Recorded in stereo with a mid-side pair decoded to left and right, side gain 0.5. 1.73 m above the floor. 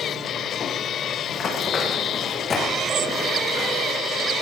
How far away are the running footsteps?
About 5.5 m.